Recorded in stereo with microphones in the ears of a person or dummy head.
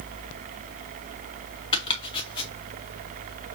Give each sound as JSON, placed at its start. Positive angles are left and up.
{"t": 1.7, "sound": "chopping", "side_deg": 30, "distance_m": 1.9}